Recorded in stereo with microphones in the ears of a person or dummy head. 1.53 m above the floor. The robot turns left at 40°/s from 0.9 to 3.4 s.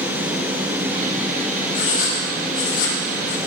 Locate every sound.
1.7 s writing: 40° left (ahead or behind), 3 m; by 3.4 s 65° left (ahead or behind), 3 m